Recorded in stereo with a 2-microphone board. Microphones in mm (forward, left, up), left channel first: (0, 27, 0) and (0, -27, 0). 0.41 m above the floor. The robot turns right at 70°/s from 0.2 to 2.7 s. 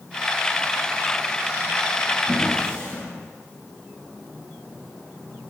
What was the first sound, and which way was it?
A drawer, 5° right (ahead or behind).